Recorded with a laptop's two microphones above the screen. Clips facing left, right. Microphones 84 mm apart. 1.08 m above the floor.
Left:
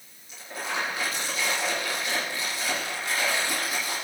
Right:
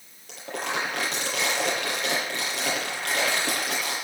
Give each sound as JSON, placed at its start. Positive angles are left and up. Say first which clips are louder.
{"t": 0.3, "sound": "crumpling", "louder": "right 3 dB", "side_deg": -80, "distance_m": 7.0}